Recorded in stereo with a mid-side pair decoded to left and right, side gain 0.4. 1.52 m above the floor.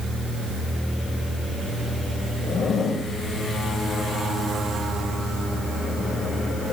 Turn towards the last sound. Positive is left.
turn(degrees=55)